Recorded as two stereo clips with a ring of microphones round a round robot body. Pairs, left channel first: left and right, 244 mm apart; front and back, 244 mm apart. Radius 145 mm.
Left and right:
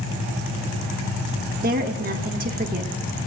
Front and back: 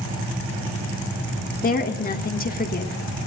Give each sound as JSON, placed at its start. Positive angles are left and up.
{"t": 1.6, "sound": "a woman speaking", "azimuth_deg": -45, "distance_m": 1.7}